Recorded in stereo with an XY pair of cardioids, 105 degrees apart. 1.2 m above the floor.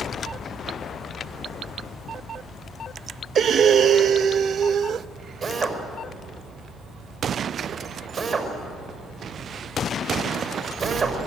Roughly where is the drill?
Ahead right.